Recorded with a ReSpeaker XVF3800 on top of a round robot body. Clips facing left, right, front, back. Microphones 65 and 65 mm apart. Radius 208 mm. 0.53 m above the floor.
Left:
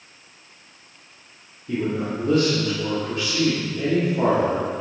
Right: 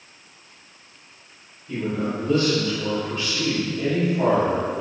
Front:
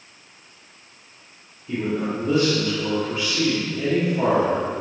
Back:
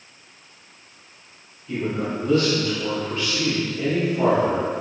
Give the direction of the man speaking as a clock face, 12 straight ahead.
10 o'clock.